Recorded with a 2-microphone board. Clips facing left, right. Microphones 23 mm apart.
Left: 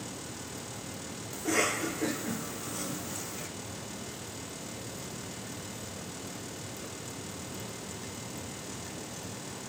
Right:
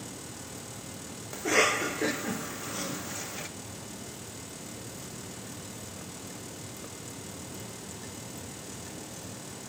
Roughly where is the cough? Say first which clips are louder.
Right 4 dB; right.